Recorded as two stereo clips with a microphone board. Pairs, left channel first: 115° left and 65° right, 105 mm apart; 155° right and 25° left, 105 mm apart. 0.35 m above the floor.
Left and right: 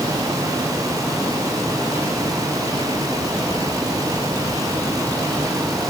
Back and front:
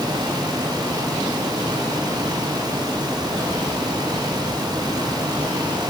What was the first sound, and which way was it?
Only background noise.